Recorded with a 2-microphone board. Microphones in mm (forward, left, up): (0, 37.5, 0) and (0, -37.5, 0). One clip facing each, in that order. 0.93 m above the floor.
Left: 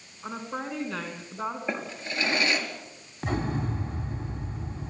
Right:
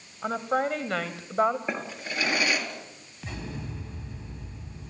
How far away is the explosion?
About 2.5 m.